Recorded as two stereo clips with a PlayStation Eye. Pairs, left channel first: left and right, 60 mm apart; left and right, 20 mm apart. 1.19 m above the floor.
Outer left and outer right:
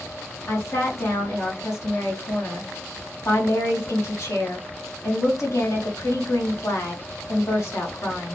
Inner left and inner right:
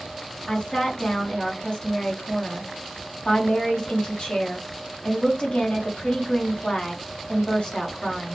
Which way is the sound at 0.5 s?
55° left (ahead or behind).